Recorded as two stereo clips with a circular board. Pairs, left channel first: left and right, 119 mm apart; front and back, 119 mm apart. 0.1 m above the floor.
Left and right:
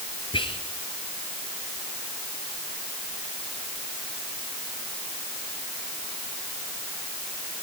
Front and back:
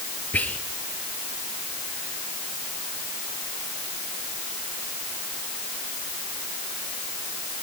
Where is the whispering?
75° left, 1.9 m.